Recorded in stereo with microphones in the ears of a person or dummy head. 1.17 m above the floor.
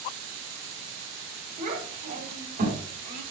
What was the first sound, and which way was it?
A child speaking, 50° right (ahead or behind).